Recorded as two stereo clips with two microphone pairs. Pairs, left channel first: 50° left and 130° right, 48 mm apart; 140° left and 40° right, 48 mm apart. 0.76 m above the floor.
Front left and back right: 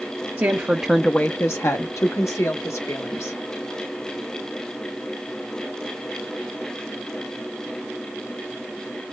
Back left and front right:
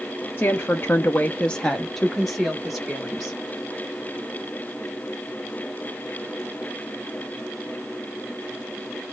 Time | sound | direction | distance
0.4 | a woman speaking | 170° right | 0.7 m